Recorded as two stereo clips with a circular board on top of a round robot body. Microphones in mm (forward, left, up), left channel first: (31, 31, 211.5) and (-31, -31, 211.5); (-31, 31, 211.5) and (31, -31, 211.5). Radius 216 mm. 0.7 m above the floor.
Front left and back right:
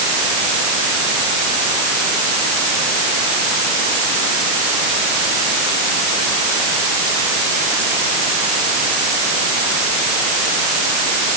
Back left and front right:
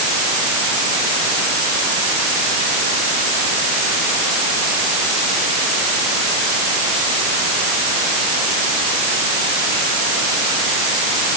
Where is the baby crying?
I don't hear a baby crying.